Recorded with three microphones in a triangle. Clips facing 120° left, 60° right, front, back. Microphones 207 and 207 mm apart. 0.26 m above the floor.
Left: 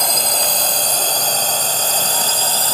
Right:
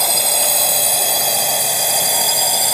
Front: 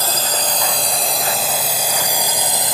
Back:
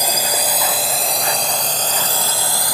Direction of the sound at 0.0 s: 135° right.